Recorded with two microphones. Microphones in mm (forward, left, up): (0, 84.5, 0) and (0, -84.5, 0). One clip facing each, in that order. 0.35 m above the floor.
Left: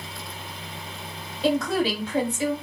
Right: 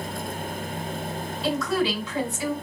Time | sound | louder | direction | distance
1.4 | a woman speaking | left 2 dB | 55° left (ahead or behind) | 2.5 m